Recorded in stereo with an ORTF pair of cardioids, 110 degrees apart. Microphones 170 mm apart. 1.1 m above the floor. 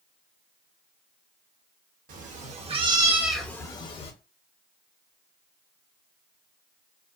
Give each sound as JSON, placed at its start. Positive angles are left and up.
{"t": 2.1, "sound": "a cat meowing", "azimuth_deg": -55, "distance_m": 1.0}